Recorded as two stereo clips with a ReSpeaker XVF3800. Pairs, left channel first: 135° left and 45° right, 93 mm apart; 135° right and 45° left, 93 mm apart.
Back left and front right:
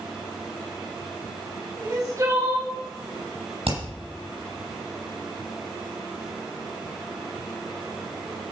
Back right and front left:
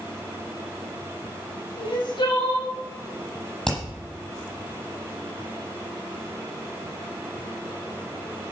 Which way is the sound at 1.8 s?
100° right.